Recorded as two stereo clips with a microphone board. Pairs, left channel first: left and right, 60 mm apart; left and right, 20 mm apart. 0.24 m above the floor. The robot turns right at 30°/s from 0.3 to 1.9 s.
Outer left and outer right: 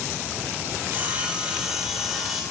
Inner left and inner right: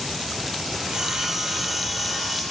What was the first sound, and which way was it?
Sawing, 40° right.